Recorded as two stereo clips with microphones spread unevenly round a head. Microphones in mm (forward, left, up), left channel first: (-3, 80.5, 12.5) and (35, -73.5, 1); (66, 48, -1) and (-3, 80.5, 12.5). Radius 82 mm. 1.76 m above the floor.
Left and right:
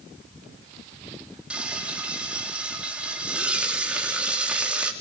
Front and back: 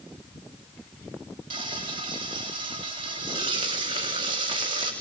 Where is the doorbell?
I don't hear a doorbell.